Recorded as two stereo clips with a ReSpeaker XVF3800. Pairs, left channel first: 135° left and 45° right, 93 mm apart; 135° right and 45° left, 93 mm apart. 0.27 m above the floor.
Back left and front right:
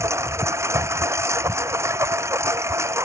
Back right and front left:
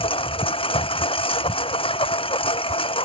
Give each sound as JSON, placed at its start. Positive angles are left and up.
{"t": 0.0, "sound": "a lawn mower", "azimuth_deg": -110}